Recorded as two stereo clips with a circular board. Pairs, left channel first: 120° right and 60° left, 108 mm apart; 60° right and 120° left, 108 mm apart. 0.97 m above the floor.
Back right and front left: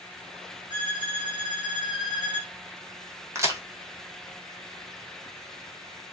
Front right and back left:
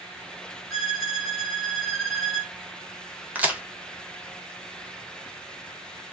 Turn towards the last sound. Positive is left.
turn(degrees=60)